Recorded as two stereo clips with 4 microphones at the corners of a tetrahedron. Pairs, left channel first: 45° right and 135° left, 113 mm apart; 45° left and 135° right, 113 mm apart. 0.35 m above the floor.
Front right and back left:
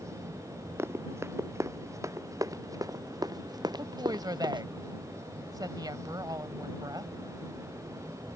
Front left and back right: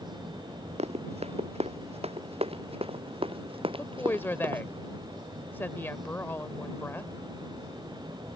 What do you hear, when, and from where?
0.8 s running footsteps: 155° right; by 4.6 s straight behind
3.8 s a woman speaking: 105° left